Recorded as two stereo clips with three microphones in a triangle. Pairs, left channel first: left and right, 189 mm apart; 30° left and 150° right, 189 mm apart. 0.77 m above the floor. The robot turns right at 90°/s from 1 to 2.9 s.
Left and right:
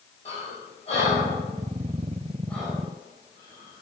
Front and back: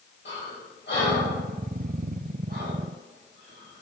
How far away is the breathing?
About 4.5 m.